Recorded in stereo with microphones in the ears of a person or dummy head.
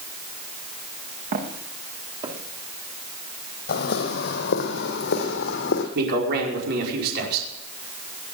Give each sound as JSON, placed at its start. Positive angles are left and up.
{"t": 1.3, "sound": "footsteps", "side_deg": -50, "distance_m": 4.0}
{"t": 3.7, "sound": "footsteps", "side_deg": 50, "distance_m": 2.5}
{"t": 6.0, "sound": "a man speaking", "side_deg": -55, "distance_m": 5.0}